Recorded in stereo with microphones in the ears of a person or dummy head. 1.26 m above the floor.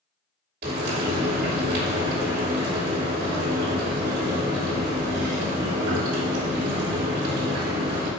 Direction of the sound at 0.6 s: 45° right (ahead or behind).